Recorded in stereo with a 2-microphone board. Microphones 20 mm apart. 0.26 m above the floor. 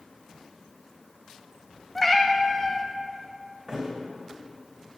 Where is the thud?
30° right (ahead or behind), 2 m.